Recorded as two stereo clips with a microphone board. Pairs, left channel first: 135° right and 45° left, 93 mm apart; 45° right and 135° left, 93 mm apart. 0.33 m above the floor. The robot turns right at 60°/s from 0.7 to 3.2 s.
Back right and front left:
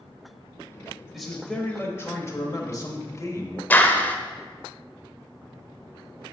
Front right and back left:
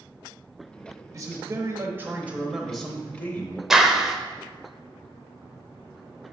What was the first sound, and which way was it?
A man speaking, 130° left.